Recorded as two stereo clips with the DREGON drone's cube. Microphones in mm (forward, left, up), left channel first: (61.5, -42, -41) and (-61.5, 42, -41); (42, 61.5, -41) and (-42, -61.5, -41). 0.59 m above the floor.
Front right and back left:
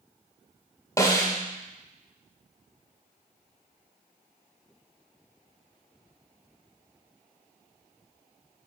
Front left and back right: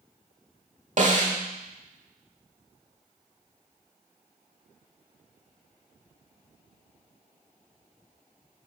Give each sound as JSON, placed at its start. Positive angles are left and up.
{"t": 1.0, "sound": "a snare drum", "azimuth_deg": -100, "distance_m": 1.3}